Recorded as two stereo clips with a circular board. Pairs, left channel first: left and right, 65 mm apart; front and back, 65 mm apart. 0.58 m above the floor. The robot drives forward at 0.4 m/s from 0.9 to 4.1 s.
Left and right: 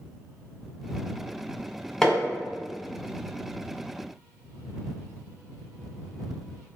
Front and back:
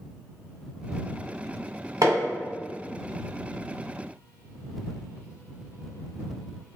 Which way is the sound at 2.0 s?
175° left.